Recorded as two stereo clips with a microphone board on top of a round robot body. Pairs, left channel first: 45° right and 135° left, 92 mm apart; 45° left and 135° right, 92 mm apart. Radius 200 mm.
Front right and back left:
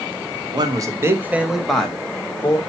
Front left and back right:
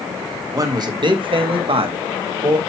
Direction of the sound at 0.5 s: 175° left.